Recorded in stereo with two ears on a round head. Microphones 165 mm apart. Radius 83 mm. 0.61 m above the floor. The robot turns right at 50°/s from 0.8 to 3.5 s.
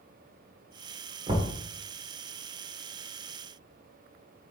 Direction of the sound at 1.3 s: 30° right (ahead or behind).